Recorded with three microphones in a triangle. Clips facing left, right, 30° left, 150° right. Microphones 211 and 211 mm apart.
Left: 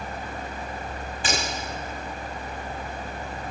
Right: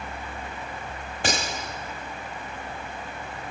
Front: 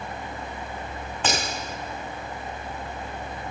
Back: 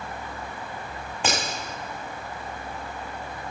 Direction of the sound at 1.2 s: 70° right.